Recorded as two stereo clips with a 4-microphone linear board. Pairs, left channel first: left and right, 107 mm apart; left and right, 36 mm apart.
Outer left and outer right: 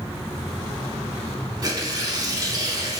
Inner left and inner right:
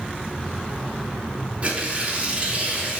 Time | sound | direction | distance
1.6 | tearing paper | 35° right (ahead or behind) | 0.5 m